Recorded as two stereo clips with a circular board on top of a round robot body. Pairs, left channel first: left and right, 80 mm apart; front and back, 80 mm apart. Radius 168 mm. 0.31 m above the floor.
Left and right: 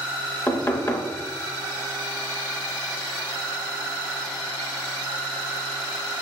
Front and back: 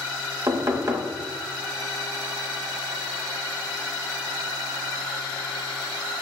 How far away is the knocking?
About 0.8 m.